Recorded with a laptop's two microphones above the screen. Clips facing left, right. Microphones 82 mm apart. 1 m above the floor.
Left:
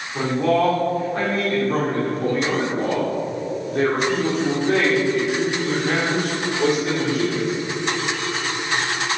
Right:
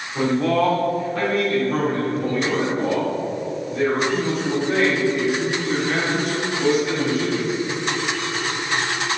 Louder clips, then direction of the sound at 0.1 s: Even; 20° left (ahead or behind).